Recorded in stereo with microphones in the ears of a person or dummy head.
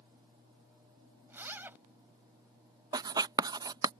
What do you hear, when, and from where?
1.3 s a zipper: 10° right (ahead or behind)
2.9 s writing: 20° right (ahead or behind)